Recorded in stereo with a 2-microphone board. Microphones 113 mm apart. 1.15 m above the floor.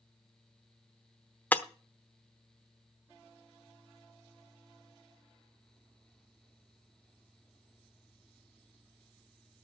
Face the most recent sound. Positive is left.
turn(degrees=15)  # may be behind; listen again after turning